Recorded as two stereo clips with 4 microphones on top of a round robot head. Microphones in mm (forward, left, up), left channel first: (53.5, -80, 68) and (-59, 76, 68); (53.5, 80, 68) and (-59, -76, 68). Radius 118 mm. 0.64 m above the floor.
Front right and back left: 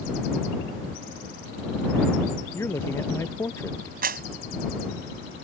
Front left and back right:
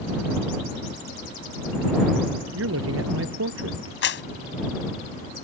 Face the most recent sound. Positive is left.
turn(degrees=80)